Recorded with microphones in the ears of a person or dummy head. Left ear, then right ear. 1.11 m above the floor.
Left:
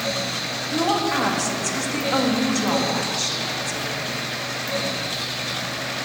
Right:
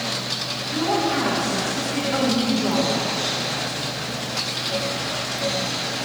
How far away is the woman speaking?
About 1.4 m.